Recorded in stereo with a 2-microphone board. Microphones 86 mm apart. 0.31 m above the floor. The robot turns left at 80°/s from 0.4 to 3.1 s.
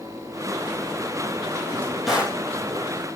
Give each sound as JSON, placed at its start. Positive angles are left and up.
{"t": 1.6, "sound": "a drawer", "azimuth_deg": 35, "distance_m": 3.0}